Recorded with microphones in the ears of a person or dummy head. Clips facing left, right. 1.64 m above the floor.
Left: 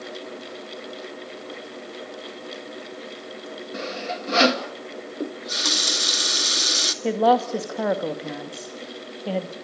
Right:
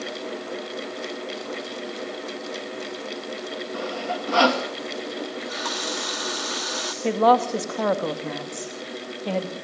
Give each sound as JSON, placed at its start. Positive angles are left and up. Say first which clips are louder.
{"t": 3.7, "sound": "sawing", "louder": "right 1 dB", "side_deg": 25, "distance_m": 2.5}
{"t": 5.2, "sound": "a running tap", "louder": "even", "side_deg": 40, "distance_m": 1.8}
{"t": 7.0, "sound": "a woman speaking", "louder": "right 1 dB", "side_deg": 10, "distance_m": 2.0}